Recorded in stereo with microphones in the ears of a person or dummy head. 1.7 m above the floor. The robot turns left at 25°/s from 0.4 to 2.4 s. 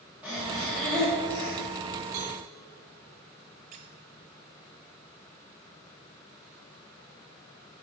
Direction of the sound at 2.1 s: 60° right (ahead or behind).